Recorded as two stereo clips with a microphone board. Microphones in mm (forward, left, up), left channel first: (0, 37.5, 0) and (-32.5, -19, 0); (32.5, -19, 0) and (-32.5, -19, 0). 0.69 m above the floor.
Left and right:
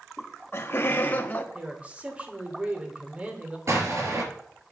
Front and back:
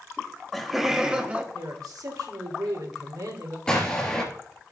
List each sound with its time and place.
0.2 s laughter: 70° left, 1.0 m; by 1.4 s 120° left, 1.2 m
1.5 s a man speaking: 175° left, 2.5 m
3.7 s an explosion: 75° right, 3 m